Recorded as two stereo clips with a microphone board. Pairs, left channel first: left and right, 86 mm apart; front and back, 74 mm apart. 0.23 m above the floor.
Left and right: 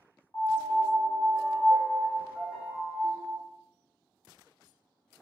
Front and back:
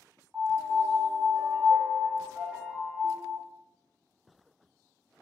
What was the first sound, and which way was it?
A piano, 130° left.